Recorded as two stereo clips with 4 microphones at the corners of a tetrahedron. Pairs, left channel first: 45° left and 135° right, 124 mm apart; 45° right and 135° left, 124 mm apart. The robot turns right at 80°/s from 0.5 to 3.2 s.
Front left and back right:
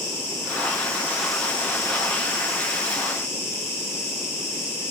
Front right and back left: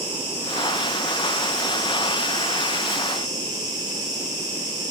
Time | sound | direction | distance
0.0 | an insect | 110° right | 1.4 m